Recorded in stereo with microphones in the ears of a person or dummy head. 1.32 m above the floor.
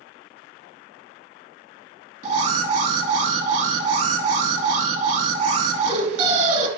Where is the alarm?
40° right (ahead or behind), 1.4 m.